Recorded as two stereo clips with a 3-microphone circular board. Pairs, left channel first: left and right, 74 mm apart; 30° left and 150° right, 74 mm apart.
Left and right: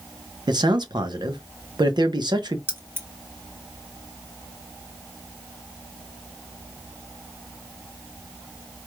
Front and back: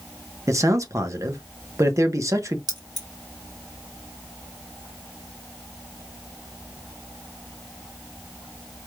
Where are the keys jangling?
150° right, 1.3 m.